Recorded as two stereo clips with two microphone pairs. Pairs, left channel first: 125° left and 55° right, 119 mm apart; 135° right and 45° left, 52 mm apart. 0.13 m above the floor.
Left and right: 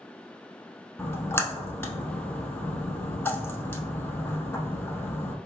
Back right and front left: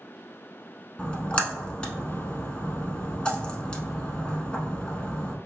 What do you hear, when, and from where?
1.0 s a splash: straight behind, 0.6 m